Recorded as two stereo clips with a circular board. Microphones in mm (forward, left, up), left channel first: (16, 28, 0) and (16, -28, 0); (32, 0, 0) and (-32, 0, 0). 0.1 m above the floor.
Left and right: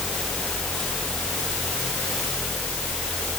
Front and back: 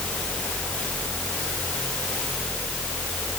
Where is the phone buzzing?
No phone buzzing in this recording.